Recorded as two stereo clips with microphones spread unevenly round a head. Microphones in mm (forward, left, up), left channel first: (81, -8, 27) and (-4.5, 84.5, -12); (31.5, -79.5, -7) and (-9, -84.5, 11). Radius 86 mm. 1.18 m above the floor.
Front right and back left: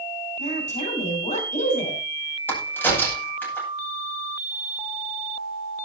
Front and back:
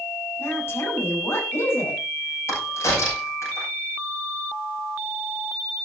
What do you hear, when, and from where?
0.4 s a woman speaking: 20° right, 7.5 m
2.5 s a crack: 30° left, 9.5 m